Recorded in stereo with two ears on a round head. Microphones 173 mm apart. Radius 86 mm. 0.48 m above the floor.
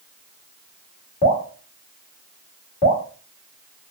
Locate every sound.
1.2 s dripping: 35° left (ahead or behind), 1.6 m